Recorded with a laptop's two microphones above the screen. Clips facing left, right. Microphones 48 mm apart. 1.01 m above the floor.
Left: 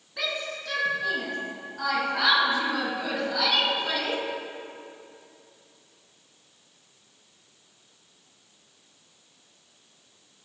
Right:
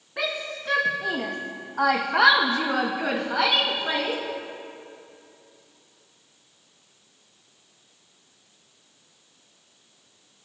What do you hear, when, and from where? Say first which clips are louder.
0.2 s a shout: right 2 dB; 30° right (ahead or behind), 1.9 m; by 4.2 s 20° right (ahead or behind), 1.8 m